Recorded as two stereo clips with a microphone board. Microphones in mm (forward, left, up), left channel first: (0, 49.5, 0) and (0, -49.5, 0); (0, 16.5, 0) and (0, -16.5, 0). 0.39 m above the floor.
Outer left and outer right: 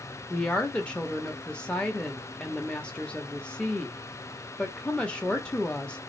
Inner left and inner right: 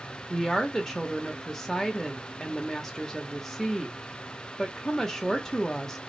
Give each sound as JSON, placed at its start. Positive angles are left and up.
{"t": 0.3, "sound": "a woman speaking", "side_deg": 10, "distance_m": 0.8}